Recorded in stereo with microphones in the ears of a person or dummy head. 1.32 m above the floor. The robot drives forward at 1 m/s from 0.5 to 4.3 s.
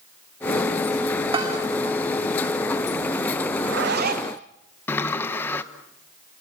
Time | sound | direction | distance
1.3 | a bell | 35° right (ahead or behind) | 3 m
3.5 | a zipper | 65° right (ahead or behind) | 1.3 m
4.9 | a sliding door | 15° left (ahead or behind) | 1.0 m